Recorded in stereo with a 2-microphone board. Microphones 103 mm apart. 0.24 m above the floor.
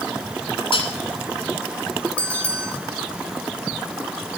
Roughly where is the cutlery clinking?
Left.